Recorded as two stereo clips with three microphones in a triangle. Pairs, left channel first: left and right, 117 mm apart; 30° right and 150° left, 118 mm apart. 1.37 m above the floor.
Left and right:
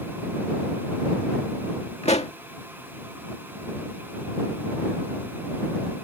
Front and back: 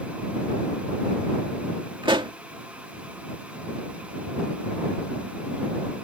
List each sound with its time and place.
2.0 s a pop: 105° left